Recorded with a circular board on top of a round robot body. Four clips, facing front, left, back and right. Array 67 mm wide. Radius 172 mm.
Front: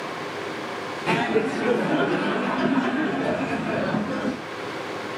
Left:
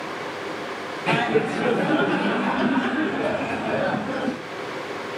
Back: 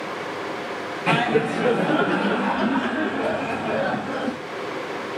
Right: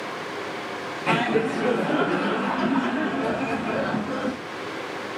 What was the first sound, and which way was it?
Laughter, straight behind.